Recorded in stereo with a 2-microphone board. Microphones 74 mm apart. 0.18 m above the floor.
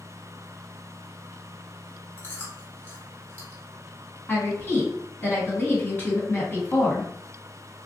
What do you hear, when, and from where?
2.2 s chewing: 25° left (ahead or behind), 1.6 m
4.3 s a woman speaking: 30° left (ahead or behind), 1.5 m